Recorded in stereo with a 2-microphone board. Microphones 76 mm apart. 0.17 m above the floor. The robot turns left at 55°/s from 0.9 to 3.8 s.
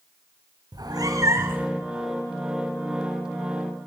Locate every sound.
0.7 s a cat meowing: 115° right, 1.5 m; by 1.7 s 160° right, 1.5 m